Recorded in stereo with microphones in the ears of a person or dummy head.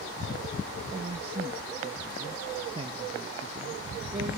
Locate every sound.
0.9 s a man speaking: 35° right (ahead or behind), 1.1 m